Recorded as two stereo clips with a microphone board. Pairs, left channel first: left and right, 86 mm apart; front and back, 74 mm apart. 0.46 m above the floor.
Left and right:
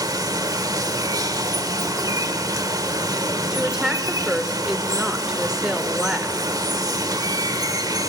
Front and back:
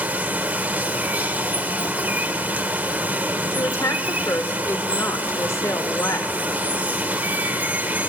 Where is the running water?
115° right, 1.2 m.